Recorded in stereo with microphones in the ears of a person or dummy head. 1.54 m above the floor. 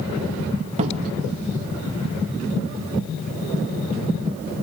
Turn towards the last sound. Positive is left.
turn(degrees=-35)  # may be behind; listen again after turning